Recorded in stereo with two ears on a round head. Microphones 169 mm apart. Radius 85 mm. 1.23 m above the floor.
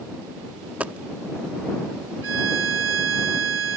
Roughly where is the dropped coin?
Centre.